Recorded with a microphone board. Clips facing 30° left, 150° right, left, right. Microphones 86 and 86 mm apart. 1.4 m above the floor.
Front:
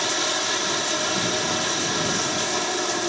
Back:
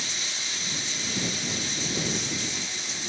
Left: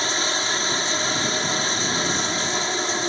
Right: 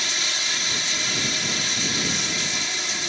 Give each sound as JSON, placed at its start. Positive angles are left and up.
{"t": 0.0, "sound": "running water", "azimuth_deg": 40}